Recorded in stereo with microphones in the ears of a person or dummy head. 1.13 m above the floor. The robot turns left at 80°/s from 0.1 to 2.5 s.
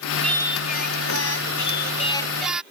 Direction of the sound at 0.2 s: 175° left.